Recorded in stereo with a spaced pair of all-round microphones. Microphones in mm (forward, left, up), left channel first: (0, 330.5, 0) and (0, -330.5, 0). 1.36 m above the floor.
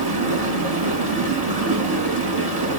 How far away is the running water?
About 1.5 m.